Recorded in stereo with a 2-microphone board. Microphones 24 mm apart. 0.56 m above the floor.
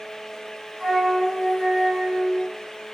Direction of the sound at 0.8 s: 15° left (ahead or behind).